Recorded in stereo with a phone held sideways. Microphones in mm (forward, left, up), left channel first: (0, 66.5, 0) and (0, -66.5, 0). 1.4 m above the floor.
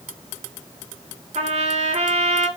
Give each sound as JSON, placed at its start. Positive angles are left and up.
{"t": 1.4, "sound": "a trumpet", "side_deg": -55, "distance_m": 0.6}